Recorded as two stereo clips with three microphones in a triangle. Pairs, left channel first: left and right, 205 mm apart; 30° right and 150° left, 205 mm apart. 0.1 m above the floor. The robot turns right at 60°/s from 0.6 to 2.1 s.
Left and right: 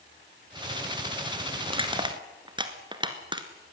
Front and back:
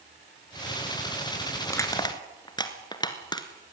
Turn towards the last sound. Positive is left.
turn(degrees=-65)